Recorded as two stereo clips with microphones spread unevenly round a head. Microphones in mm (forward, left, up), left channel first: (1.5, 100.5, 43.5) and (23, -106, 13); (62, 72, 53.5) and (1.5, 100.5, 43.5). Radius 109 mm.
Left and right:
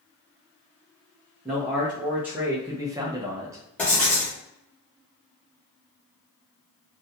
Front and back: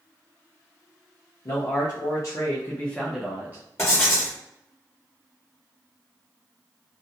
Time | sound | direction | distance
1.4 | a man speaking | straight ahead | 1.1 m
3.8 | writing | 15° left | 1.2 m